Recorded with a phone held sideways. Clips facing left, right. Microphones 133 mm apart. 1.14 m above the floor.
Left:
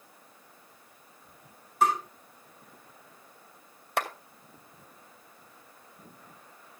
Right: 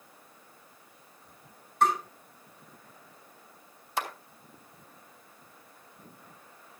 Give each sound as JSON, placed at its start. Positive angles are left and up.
{"t": 1.8, "sound": "tapping", "side_deg": 5, "distance_m": 8.5}
{"t": 4.0, "sound": "a clap", "side_deg": 60, "distance_m": 2.0}